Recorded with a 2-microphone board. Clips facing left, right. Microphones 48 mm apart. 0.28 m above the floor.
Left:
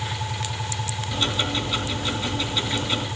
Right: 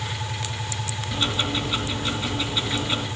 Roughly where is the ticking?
Centre.